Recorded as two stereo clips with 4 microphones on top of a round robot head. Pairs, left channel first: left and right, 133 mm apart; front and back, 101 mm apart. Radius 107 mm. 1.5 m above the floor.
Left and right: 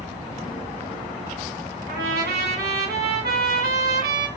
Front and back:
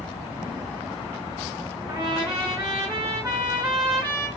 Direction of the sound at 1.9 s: 100° right.